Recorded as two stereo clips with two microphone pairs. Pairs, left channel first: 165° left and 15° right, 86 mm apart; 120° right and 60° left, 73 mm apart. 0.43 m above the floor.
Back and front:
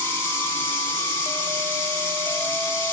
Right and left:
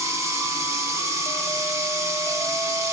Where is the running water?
100° left, 1.6 m.